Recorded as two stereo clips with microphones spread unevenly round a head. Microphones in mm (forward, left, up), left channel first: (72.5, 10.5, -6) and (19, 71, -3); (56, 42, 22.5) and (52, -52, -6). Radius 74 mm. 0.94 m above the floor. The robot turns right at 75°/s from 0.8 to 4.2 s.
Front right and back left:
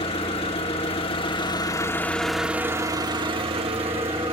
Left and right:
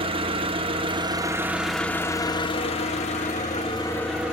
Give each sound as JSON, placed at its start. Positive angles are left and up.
{"t": 0.0, "sound": "an engine running", "azimuth_deg": -70, "distance_m": 1.6}